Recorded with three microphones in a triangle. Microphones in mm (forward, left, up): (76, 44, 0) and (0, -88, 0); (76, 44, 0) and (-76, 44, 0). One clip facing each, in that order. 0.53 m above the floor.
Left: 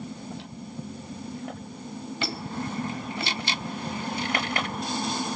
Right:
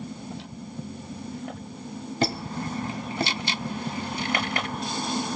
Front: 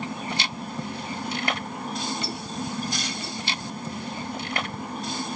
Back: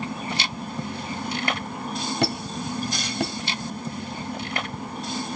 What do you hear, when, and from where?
2.2 s a squeak: 165° right, 1.6 m